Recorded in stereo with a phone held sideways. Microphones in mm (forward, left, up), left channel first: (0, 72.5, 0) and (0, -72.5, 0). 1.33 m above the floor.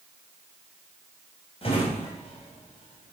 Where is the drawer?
40° left (ahead or behind), 3 m.